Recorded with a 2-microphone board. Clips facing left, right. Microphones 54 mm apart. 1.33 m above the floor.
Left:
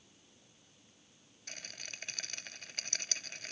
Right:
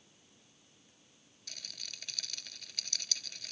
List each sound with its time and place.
1.5 s a rattle: 40° left (ahead or behind)